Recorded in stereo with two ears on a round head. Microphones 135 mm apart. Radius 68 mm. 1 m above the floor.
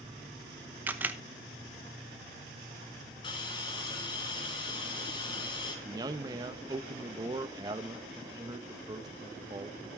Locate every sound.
0.9 s a camera shutter: 15° right (ahead or behind), 0.9 m
3.2 s a hiss: 30° left (ahead or behind), 3 m
5.8 s a man speaking: 25° right (ahead or behind), 0.8 m